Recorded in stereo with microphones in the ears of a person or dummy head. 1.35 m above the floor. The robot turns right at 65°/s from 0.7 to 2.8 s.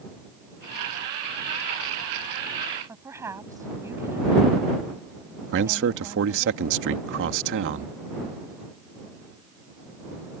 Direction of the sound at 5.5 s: 60° right (ahead or behind).